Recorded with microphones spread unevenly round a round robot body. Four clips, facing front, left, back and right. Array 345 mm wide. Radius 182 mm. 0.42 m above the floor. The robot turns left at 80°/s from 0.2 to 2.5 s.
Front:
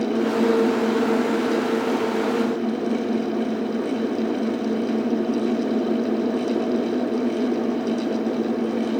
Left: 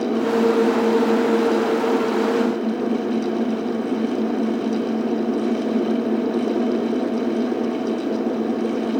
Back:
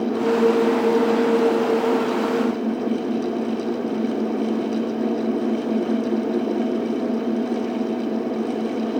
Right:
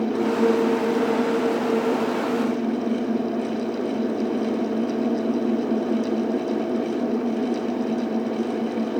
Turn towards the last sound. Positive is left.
No sound to turn to.